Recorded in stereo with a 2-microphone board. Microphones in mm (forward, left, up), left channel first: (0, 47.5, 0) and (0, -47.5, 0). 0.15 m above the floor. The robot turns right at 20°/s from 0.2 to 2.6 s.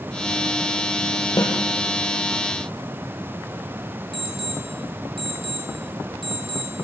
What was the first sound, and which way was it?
A snare drum, 45° left (ahead or behind).